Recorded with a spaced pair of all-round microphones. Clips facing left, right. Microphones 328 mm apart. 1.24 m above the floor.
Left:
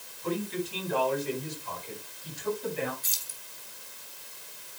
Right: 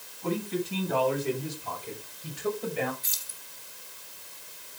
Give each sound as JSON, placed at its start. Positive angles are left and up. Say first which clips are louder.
{"t": 0.2, "sound": "a man speaking", "louder": "right 2 dB", "side_deg": -75, "distance_m": 8.5}
{"t": 3.0, "sound": "keys jangling", "louder": "even", "side_deg": -70, "distance_m": 3.5}